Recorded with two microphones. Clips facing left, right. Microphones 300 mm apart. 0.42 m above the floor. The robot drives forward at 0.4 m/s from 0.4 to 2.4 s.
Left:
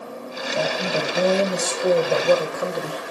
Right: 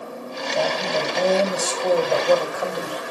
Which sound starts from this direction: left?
A woman speaking, at 0.5 s.